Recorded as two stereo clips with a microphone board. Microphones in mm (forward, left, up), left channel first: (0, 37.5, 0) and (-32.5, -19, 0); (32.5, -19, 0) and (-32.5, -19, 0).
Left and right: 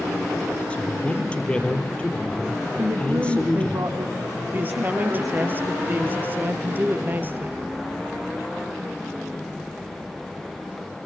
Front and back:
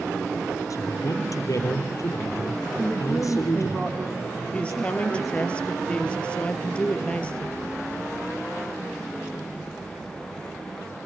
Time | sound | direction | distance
0.7 | a man speaking | 10° right | 3.5 m
2.8 | a woman speaking | 95° right | 7 m
4.5 | a woman speaking | 70° right | 1.9 m